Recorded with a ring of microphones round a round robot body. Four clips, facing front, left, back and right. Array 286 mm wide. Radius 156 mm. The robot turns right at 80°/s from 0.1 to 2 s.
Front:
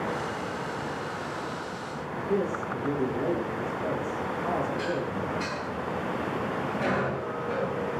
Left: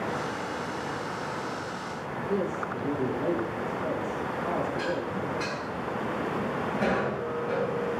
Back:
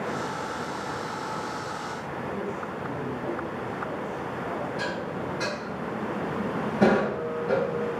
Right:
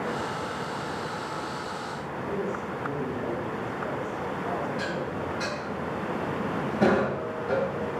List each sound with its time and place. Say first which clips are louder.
2.3 s a man speaking: left 2 dB, front 7 dB; 20° left, 8 m
4.8 s dishes clattering: left 1 dB, front 1 dB; 150° right, 8 m